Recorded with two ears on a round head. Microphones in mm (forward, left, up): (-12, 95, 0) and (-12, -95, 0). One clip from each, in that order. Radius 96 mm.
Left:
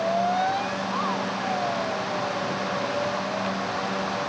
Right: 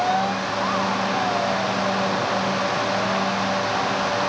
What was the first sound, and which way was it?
Only background noise.